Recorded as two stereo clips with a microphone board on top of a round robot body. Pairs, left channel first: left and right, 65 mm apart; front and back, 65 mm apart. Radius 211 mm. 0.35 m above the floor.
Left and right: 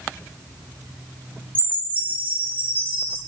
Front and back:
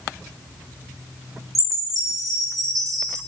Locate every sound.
1.6 s a chime: 155° right, 1.5 m